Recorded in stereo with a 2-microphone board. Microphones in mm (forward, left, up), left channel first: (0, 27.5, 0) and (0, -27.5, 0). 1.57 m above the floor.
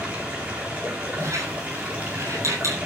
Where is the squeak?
65° right (ahead or behind), 8.5 m.